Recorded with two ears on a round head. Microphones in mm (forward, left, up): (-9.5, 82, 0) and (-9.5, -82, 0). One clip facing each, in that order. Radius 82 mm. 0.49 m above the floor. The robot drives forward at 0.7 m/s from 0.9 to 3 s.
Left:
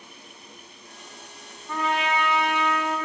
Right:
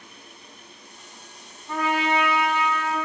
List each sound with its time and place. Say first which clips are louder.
1.7 s a trumpet: right 2 dB; 10° right (ahead or behind), 2.0 m; by 3.0 s 5° right (ahead or behind), 3 m